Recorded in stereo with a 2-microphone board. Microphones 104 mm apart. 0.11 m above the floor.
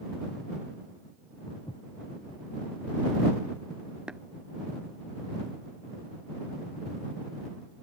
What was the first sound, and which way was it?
Footsteps, 55° left (ahead or behind).